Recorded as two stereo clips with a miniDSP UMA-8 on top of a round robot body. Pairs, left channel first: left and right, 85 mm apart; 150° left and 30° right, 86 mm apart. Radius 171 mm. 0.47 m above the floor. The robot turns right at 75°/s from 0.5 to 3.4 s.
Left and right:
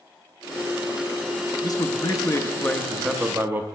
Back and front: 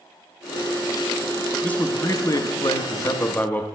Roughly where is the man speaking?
Left.